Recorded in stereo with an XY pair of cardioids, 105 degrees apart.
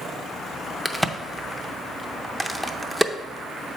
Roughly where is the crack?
Ahead.